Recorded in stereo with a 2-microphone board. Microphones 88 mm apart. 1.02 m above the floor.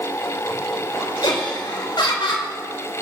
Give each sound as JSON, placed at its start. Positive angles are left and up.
{"t": 1.2, "sound": "laughter", "side_deg": 65, "distance_m": 3.5}